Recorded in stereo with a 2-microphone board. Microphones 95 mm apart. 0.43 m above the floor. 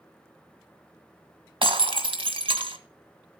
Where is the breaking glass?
70° right (ahead or behind), 1.6 m.